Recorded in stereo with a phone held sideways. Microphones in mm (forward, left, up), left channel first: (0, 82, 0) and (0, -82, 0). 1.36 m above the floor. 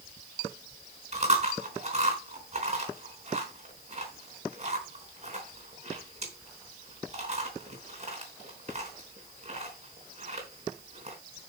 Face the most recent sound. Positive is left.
turn(degrees=-40)  # may be behind; listen again after turning